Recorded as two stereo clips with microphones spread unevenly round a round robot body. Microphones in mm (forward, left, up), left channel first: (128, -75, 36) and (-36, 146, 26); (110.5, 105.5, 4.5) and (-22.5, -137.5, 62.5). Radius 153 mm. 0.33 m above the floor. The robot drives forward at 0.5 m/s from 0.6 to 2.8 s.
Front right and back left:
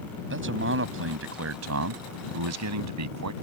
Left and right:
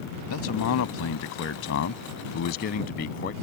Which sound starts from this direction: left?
A man speaking, at 0.3 s.